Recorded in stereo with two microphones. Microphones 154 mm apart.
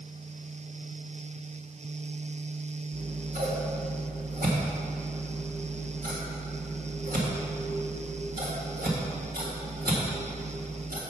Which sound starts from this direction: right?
Scissors, at 2.9 s.